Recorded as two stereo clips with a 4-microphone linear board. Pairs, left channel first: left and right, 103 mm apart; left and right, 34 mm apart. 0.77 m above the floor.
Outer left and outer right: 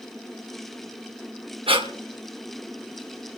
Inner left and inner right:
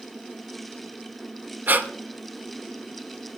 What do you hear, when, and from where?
1.7 s breathing: 60° right (ahead or behind), 2 m